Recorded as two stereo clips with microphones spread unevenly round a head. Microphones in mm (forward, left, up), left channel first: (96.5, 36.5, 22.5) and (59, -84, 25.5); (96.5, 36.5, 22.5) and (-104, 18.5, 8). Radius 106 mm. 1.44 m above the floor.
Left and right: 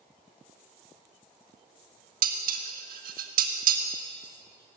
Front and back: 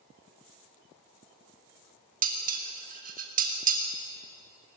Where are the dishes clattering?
120° right, 1.9 m.